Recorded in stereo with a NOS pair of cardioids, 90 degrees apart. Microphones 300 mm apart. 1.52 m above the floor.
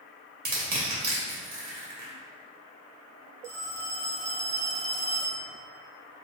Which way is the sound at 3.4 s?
60° right.